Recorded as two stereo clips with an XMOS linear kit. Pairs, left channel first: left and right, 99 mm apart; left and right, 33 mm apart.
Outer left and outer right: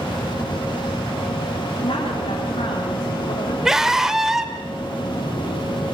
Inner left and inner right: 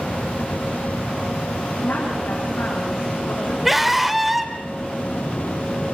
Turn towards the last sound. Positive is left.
turn(degrees=-5)  # may be behind; listen again after turning